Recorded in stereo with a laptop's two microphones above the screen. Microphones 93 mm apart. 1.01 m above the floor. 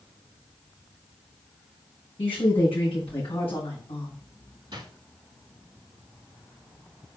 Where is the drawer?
50° right (ahead or behind), 3 m.